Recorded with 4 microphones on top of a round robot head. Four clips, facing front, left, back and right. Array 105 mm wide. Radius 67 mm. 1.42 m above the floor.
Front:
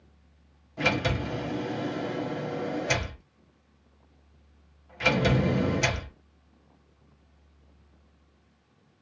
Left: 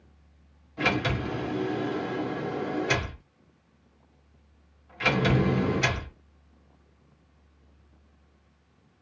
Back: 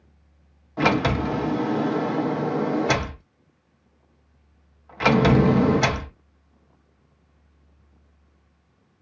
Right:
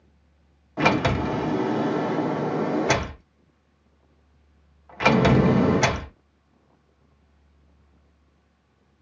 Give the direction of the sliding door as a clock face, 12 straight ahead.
4 o'clock.